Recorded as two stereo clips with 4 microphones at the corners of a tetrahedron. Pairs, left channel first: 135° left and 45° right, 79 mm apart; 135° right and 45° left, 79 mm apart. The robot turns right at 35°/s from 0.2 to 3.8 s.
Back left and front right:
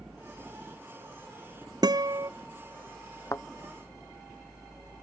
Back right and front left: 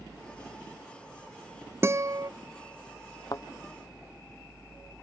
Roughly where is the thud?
Behind.